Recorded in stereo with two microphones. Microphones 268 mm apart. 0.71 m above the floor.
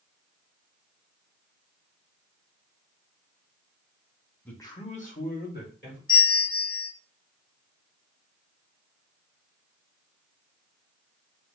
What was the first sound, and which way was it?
A man speaking, 5° left (ahead or behind).